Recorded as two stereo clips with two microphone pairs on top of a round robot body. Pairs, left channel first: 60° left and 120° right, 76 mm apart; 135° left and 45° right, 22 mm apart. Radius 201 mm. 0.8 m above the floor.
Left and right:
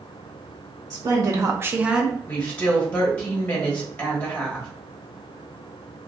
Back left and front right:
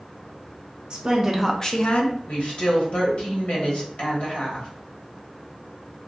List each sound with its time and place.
0.9 s a woman speaking: 90° right, 0.8 m; by 2.2 s 150° left, 0.9 m
2.3 s a woman speaking: 125° left, 1.3 m